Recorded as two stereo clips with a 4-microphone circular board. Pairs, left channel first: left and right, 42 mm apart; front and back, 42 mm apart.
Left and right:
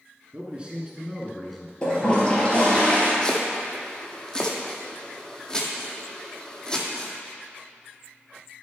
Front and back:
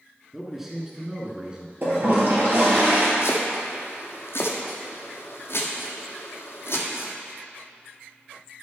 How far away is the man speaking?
About 1.2 m.